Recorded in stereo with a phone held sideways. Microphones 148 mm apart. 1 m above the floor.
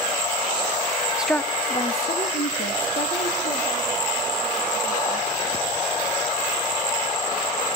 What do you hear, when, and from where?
1.2 s a woman speaking: 10° right (ahead or behind), 0.7 m; by 5.3 s 80° left, 4.5 m